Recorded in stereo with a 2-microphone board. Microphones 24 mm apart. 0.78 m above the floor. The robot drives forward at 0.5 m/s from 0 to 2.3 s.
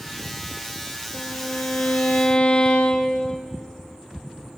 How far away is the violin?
About 0.5 m.